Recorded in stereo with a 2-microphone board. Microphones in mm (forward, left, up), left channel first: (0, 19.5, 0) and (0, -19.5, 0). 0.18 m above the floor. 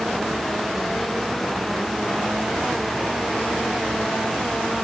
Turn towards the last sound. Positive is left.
No sound to turn to.